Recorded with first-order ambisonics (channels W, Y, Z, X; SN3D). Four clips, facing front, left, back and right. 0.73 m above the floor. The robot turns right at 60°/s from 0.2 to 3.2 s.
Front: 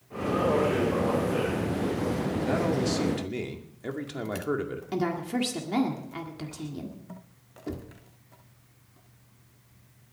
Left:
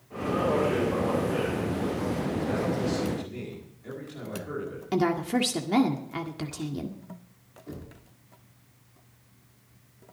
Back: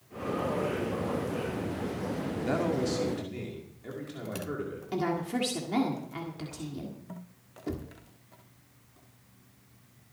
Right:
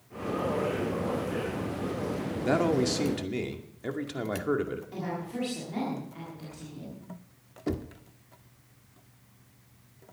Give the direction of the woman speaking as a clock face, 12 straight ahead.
9 o'clock.